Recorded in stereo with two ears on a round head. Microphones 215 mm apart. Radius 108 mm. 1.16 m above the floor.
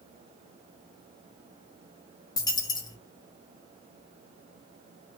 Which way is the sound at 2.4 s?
15° left (ahead or behind).